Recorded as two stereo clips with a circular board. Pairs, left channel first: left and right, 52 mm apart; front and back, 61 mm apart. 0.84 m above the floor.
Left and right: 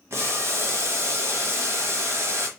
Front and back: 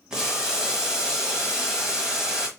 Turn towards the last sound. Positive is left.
turn(degrees=-100)